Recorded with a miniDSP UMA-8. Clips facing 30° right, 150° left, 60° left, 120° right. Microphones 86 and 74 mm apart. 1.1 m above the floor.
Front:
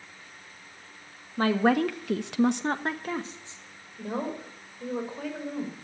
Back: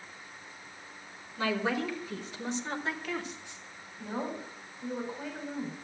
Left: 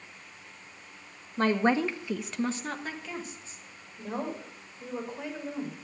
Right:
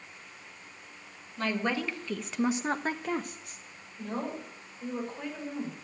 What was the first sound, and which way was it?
A woman speaking, 15° left.